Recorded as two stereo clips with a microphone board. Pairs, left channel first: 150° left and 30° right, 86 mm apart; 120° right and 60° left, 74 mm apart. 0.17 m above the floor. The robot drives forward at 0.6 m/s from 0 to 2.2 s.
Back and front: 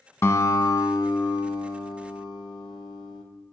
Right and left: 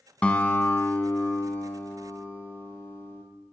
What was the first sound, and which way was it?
A guitar, straight behind.